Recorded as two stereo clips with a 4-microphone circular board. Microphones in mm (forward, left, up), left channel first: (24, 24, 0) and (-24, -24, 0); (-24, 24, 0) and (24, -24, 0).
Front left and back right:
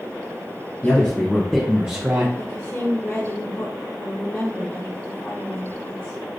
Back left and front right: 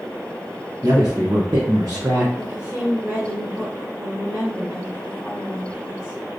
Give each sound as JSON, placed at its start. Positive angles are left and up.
{"t": 0.8, "sound": "a man speaking", "azimuth_deg": -15, "distance_m": 1.3}
{"t": 2.4, "sound": "a woman speaking", "azimuth_deg": 0, "distance_m": 2.0}